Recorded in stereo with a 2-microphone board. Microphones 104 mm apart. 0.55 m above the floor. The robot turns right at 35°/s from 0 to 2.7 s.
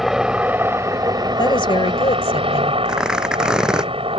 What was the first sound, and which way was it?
A helicopter, straight behind.